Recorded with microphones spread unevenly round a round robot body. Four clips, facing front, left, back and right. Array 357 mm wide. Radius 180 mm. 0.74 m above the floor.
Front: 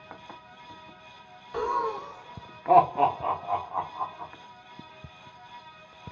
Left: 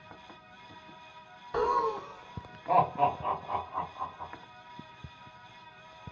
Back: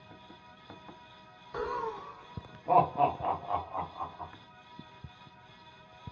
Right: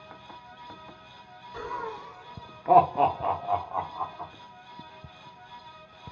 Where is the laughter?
70° left, 0.6 m; by 4.3 s 65° right, 1.9 m.